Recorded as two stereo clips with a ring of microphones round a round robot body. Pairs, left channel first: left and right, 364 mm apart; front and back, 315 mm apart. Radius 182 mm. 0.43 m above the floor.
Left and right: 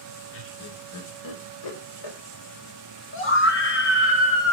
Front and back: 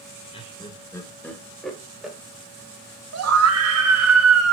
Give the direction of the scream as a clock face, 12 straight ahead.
7 o'clock.